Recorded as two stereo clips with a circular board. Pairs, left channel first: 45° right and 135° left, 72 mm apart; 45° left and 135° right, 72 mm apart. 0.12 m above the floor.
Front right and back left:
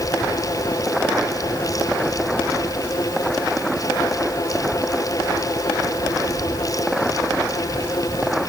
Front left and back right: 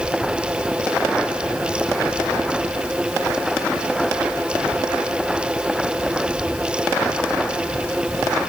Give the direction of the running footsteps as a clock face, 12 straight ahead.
I don't hear running footsteps.